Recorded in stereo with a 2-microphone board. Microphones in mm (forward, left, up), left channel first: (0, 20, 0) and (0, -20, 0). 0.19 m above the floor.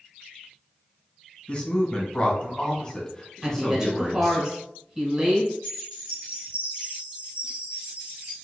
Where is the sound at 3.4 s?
20° right (ahead or behind), 1.4 m.